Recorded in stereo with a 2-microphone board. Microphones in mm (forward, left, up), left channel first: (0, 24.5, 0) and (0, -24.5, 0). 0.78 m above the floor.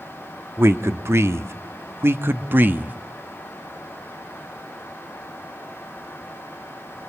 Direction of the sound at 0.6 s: 60° right (ahead or behind).